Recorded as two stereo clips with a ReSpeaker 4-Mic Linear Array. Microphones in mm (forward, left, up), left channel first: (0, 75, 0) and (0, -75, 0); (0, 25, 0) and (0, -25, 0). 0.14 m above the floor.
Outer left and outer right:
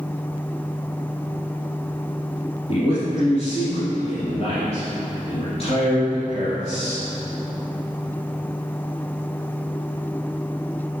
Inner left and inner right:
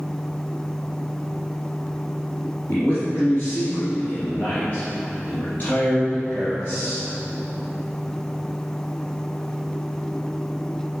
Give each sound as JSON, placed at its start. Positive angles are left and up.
{"t": 2.7, "sound": "a man speaking", "side_deg": 40, "distance_m": 2.5}